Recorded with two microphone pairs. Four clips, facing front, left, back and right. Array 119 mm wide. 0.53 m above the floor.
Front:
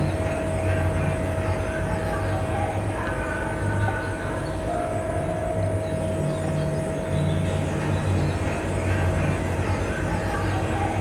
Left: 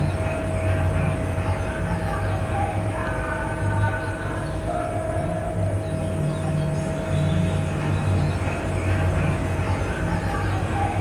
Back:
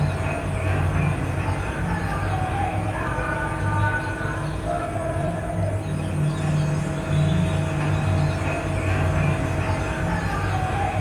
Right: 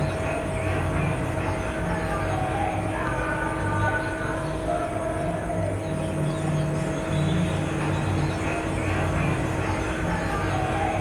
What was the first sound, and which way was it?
An insect, 175° left.